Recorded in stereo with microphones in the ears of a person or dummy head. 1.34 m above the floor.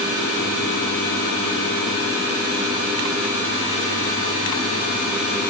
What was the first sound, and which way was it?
Only background noise.